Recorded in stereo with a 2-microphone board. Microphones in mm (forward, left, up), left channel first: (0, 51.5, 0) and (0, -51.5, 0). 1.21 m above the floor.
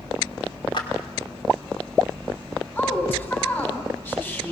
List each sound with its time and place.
0.7 s a clap: 55° left (ahead or behind), 2.5 m
2.8 s a woman speaking: 20° left (ahead or behind), 3.5 m